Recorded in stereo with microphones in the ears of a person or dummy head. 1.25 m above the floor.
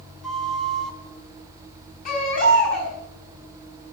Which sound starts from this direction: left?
A baby crying, at 2.0 s.